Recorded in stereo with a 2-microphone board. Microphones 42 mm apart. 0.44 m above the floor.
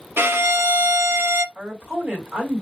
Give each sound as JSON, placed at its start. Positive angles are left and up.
{"t": 0.2, "sound": "a violin", "side_deg": -60, "distance_m": 0.7}
{"t": 1.6, "sound": "a woman speaking", "side_deg": -30, "distance_m": 2.5}